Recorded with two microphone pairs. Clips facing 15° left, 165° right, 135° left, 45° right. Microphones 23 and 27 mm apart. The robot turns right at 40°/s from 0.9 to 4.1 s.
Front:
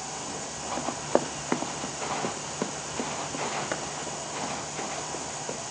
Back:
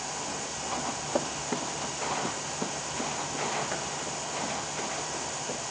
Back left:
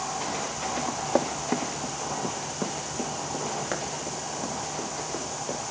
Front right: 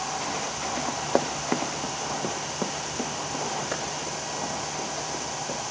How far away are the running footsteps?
About 1.1 m.